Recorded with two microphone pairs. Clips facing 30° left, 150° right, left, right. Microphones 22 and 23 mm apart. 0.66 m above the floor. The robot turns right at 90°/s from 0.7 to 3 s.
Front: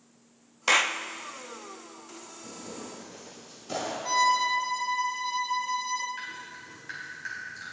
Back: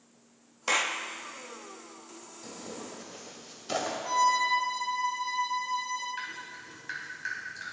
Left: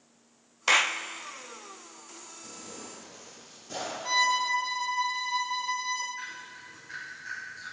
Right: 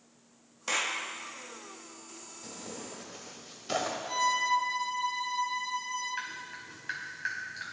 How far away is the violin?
About 1.6 m.